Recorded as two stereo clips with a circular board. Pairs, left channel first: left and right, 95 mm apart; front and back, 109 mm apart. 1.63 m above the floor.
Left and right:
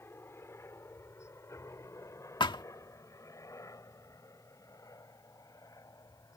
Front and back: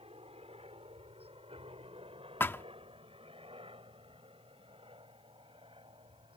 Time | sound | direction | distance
0.0 | a helicopter | 155° left | ?
2.4 | a thud | 65° left | ?